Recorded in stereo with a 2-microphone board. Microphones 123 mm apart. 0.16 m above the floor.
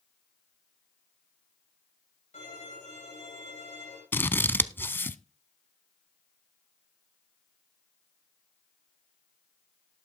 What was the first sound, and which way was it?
A violin, 80° left.